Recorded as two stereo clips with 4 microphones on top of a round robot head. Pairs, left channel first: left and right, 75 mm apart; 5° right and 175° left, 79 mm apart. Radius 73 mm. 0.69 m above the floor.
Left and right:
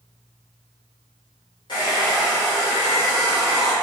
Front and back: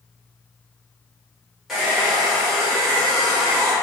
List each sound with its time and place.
1.7 s a hair dryer: 90° left, 1.0 m